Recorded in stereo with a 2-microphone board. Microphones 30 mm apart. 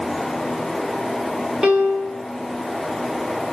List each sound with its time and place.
1.6 s a piano: 20° right (ahead or behind), 1.1 m